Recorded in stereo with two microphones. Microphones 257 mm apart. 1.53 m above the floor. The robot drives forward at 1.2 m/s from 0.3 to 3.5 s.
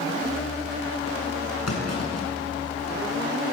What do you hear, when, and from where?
1.7 s a clunk: 75° left (ahead or behind), 7.5 m; by 2.9 s 65° left (ahead or behind), 8 m